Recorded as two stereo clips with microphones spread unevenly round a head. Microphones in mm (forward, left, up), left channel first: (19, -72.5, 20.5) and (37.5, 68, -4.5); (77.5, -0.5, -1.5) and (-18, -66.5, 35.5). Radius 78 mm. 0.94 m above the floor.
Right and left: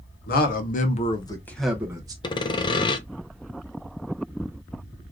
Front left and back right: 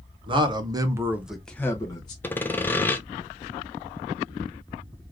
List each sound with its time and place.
0.3 s a man speaking: 90° right, 1.1 m; by 2.1 s 35° left, 0.9 m
2.2 s sawing: 35° right, 0.6 m